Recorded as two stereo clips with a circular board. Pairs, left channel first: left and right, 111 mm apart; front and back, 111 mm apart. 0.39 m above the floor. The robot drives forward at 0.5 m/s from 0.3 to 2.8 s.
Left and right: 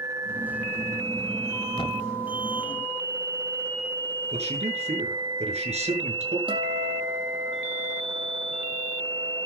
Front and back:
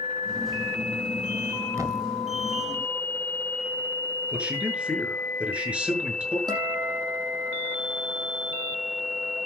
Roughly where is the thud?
Behind left.